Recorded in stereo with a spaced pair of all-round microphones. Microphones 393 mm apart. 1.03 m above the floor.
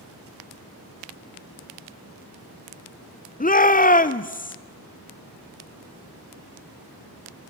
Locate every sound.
3.4 s a shout: 20° left (ahead or behind), 0.5 m